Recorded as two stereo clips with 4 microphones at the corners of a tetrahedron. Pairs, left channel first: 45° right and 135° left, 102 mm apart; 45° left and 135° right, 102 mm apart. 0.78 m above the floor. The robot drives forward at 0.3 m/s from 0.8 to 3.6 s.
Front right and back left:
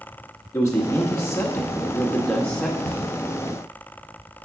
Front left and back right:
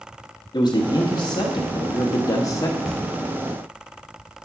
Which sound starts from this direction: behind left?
Knocking, at 2.9 s.